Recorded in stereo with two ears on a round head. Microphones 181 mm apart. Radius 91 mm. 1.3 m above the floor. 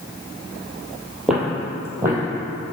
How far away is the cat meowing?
No cat meowing in this recording.